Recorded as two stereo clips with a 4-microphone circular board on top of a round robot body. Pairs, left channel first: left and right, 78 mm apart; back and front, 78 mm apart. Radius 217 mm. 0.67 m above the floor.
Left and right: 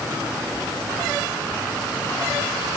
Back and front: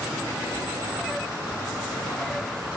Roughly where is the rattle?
No rattle in this recording.